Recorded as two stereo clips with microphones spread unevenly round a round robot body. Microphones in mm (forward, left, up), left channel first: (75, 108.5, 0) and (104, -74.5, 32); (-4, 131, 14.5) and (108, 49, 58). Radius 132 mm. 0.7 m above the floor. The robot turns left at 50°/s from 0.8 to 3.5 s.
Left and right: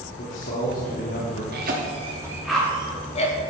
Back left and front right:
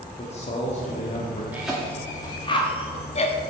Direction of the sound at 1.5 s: 125° right.